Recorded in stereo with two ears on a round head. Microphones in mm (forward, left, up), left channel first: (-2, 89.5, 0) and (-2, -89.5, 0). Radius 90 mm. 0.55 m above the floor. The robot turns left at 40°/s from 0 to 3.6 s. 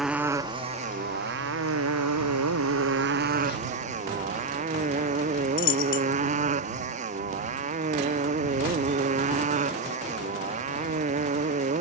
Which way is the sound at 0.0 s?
Straight ahead.